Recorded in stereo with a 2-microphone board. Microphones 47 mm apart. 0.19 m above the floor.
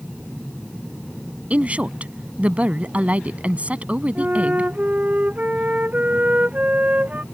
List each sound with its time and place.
1.5 s a woman speaking: 35° right (ahead or behind)
4.2 s a flute: 35° right (ahead or behind)